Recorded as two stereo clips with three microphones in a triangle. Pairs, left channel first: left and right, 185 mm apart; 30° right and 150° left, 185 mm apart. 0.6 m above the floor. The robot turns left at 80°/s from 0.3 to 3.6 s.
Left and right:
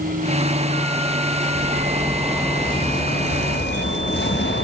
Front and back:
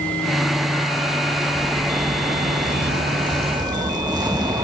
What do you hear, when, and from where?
1.5 s a zipper: 110° right, 3.5 m; by 4.6 s 80° left, 3.5 m